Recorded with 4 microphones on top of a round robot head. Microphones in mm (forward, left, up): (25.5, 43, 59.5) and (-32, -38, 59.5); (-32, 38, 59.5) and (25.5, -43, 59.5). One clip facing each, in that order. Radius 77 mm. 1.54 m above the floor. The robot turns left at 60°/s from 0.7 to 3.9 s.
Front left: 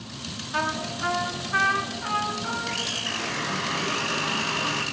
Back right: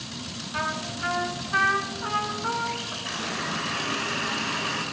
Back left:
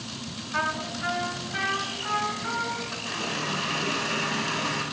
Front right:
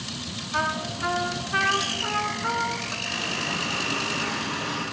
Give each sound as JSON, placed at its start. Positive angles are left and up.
{"t": 0.5, "sound": "a trumpet", "azimuth_deg": 15, "distance_m": 3.5}
{"t": 3.0, "sound": "a running tap", "azimuth_deg": 175, "distance_m": 9.0}